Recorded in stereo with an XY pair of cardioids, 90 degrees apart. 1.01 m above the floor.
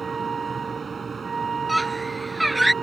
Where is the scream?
10° right.